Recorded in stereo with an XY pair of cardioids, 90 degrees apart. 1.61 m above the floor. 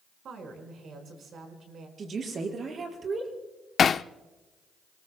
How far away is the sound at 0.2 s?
About 5 m.